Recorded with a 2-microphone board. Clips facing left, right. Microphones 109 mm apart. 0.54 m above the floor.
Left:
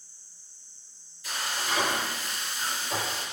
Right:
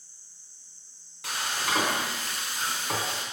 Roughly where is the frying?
Right.